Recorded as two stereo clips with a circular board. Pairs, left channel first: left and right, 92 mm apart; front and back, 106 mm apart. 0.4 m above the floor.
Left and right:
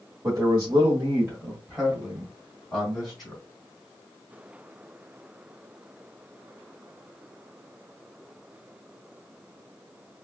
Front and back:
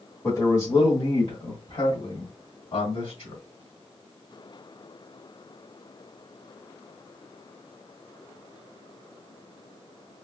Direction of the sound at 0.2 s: 55° right.